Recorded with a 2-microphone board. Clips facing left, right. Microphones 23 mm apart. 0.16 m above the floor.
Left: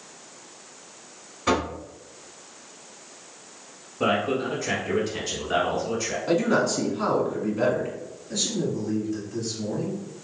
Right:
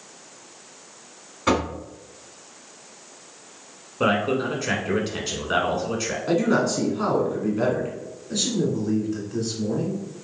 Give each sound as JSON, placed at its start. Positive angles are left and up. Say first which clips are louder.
{"t": 1.5, "sound": "knocking", "louder": "right 2 dB", "side_deg": -20, "distance_m": 1.2}
{"t": 4.0, "sound": "a man speaking", "louder": "right 2 dB", "side_deg": -35, "distance_m": 1.2}
{"t": 6.3, "sound": "a man speaking", "louder": "right 1 dB", "side_deg": -5, "distance_m": 1.3}
{"t": 8.3, "sound": "a man speaking", "louder": "right 3 dB", "side_deg": -30, "distance_m": 1.7}